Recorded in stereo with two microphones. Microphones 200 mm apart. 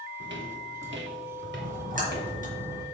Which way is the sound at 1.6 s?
45° right (ahead or behind).